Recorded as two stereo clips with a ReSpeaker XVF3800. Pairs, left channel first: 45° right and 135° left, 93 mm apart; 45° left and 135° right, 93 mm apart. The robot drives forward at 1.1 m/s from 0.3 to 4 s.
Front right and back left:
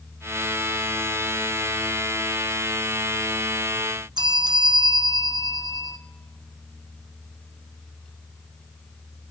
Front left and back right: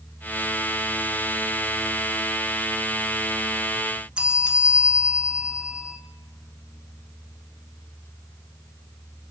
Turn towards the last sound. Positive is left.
turn(degrees=150)